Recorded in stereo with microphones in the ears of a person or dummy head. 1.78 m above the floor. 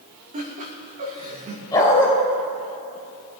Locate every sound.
0.3 s laughter: 40° right (ahead or behind), 2.5 m
1.7 s a dog barking: 15° left (ahead or behind), 3 m